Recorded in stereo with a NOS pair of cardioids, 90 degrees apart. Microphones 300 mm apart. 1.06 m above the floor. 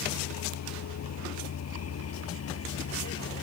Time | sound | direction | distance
0.0 | a vehicle | 70° left | ?